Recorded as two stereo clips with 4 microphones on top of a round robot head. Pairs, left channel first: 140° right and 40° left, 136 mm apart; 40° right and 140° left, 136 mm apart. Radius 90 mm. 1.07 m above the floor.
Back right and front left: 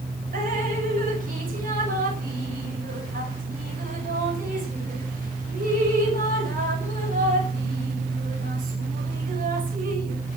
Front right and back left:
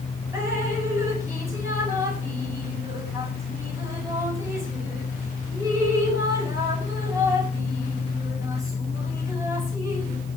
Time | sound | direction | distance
0.3 | dripping | 70° left | 5 m